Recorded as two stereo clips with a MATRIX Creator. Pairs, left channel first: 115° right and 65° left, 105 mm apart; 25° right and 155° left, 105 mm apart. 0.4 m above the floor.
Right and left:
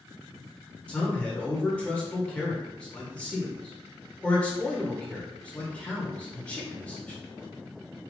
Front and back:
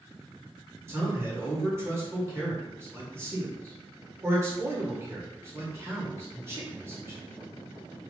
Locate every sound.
0.9 s a man speaking: 175° right, 1.1 m